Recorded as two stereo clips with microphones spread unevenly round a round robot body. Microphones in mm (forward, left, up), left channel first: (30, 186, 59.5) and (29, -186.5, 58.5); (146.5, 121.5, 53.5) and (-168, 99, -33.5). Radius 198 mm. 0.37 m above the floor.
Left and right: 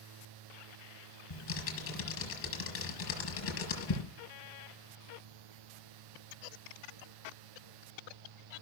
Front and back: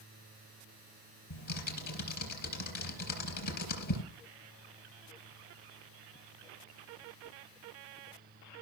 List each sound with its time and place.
1.3 s typing on a keyboard: 35° left, 5 m